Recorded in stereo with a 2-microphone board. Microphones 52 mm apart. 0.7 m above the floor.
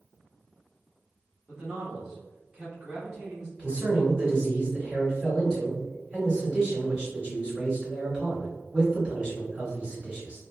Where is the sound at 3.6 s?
20° right (ahead or behind), 2.0 m.